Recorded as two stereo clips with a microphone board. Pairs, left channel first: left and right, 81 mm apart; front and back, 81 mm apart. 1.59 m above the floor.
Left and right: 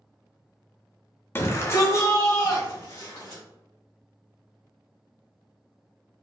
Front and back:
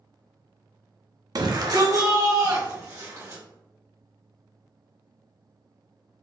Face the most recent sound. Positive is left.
turn(degrees=135)